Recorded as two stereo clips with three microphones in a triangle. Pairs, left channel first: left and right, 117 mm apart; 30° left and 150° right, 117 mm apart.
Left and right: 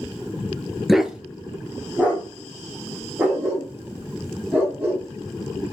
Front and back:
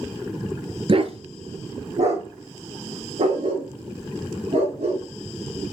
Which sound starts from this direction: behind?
A dog barking, at 0.9 s.